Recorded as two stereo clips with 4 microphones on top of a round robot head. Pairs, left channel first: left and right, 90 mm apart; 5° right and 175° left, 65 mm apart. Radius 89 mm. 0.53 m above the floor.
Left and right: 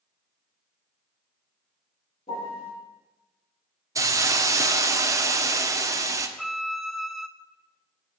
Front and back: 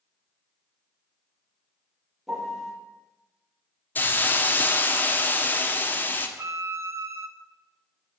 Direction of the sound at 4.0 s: 50° right.